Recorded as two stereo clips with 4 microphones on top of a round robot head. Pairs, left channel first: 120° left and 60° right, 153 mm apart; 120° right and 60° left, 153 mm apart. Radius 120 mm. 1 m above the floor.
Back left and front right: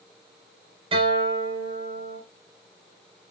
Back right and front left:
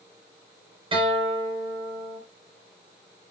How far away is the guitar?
About 5 m.